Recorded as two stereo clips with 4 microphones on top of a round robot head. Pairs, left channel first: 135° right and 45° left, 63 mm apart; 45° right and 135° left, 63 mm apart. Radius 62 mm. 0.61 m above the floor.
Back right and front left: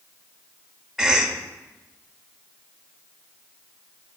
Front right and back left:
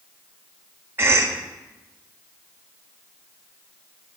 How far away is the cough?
About 0.8 m.